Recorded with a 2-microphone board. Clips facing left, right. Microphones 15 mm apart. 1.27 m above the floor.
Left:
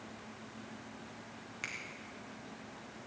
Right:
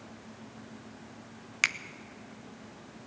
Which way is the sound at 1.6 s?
60° right (ahead or behind).